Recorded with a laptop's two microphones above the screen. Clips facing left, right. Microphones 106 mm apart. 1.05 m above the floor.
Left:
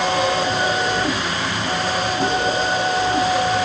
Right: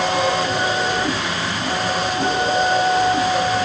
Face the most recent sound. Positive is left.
No sound to turn to.